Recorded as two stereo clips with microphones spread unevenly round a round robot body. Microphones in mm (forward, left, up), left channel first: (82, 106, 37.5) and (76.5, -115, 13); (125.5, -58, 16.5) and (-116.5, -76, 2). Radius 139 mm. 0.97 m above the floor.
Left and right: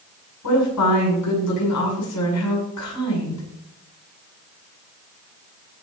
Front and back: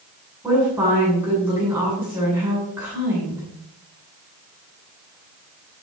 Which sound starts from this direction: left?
A woman speaking, at 0.4 s.